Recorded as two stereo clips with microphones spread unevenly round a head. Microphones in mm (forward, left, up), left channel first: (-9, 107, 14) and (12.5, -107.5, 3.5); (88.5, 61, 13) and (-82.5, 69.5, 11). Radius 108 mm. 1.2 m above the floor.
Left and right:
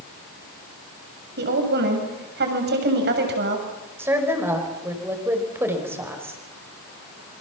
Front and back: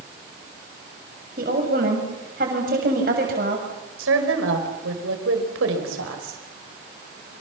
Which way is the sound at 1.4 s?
130° right.